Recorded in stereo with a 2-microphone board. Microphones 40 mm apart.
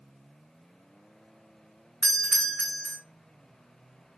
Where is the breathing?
I don't hear breathing.